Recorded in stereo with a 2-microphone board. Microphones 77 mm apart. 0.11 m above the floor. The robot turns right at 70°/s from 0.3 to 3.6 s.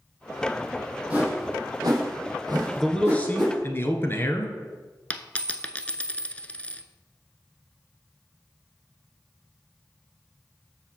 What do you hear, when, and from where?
1.1 s a whoosh: 20° right (ahead or behind), 3 m; by 3.5 s 10° left (ahead or behind), 3 m
2.8 s a man speaking: 5° left, 1.2 m; by 4.5 s 65° left, 1.2 m
5.1 s a dropped coin: 20° left (ahead or behind), 0.5 m